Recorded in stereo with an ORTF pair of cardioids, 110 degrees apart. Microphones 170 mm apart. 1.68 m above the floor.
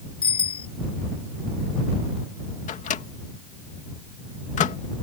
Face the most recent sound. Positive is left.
turn(degrees=45)